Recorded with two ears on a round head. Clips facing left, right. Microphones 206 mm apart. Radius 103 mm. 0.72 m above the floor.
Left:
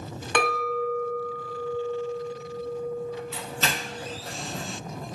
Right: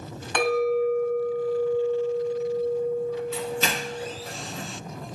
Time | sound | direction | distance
0.3 | a clink | 50° left (ahead or behind) | 0.9 m
3.3 | a doorbell | 10° right (ahead or behind) | 1.4 m